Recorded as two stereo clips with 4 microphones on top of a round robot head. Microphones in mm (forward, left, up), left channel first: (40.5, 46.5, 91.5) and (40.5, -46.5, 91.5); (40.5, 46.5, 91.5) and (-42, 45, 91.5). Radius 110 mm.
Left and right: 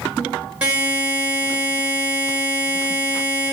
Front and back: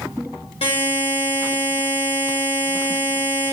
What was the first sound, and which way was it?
A buzzer, 15° right.